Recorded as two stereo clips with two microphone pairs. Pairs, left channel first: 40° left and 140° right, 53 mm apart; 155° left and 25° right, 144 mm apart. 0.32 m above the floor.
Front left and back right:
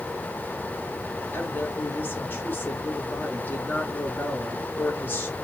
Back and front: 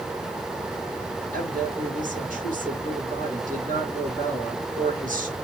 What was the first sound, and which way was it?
A woman speaking, 10° right.